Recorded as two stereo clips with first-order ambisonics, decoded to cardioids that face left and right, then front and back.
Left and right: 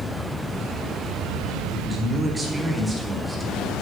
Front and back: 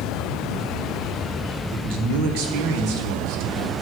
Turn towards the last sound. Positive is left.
turn(degrees=-170)